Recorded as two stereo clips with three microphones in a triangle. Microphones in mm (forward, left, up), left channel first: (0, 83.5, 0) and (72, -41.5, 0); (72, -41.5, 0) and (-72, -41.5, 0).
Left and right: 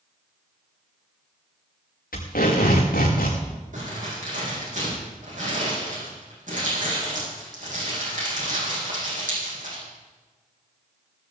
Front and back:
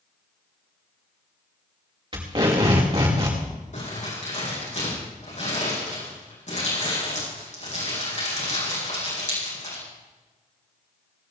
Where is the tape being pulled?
120° left, 6 m.